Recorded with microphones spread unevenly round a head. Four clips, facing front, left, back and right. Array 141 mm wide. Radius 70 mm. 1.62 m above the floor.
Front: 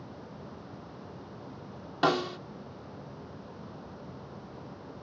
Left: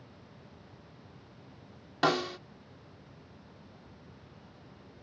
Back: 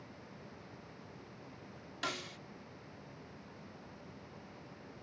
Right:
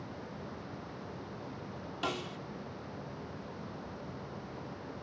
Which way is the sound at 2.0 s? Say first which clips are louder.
Left 10 dB, front 16 dB; 35° left.